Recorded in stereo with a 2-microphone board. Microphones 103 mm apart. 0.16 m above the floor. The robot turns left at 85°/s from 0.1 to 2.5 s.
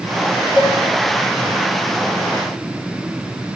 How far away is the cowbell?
About 1.4 m.